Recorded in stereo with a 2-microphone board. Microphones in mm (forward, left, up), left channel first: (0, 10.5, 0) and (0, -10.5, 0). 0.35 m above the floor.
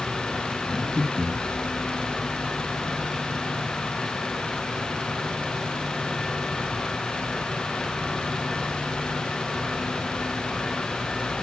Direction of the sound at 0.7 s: 5° right (ahead or behind).